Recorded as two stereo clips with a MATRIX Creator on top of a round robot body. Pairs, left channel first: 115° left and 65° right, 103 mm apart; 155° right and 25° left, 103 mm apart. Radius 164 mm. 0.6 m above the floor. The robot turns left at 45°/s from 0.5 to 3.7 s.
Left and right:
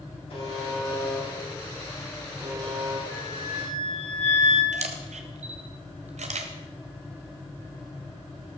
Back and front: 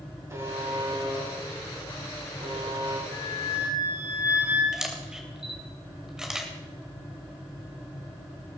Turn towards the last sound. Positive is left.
turn(degrees=-65)